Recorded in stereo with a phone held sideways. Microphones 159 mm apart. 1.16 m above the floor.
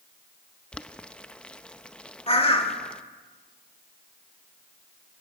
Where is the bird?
35° left (ahead or behind), 2.0 m.